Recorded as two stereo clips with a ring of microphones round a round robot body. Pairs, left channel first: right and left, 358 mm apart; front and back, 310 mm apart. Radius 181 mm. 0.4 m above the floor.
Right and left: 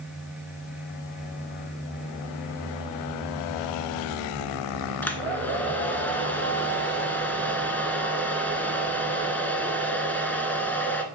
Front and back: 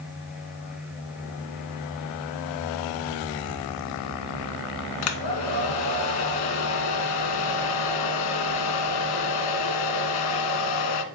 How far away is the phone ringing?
No phone ringing in this recording.